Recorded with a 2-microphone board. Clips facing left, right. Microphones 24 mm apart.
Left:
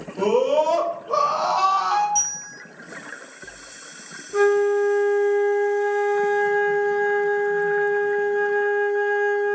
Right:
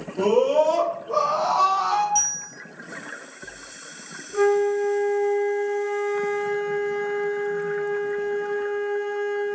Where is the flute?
75° left (ahead or behind), 1.3 m.